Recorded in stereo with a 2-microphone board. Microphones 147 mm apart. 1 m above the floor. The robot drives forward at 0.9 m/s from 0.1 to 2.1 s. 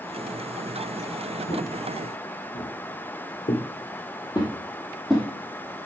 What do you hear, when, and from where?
1.5 s footsteps: 55° left (ahead or behind), 4.5 m; by 5.3 s 5° right (ahead or behind), 2.5 m